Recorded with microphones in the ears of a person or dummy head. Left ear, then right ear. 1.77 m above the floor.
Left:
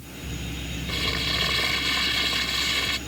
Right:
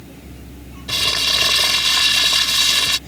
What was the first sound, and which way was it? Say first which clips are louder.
Crumpling: right 9 dB; 55° right (ahead or behind).